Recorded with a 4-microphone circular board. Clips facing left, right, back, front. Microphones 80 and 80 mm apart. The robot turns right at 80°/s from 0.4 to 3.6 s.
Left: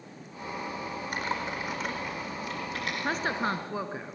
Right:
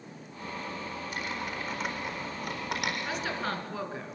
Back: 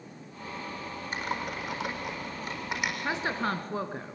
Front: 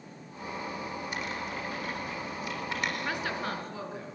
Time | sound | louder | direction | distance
1.1 | typing on a keyboard | left 4 dB, back 6 dB | 125° left | 4 m
3.0 | a woman speaking | left 4 dB, back 3 dB | 110° left | 1.7 m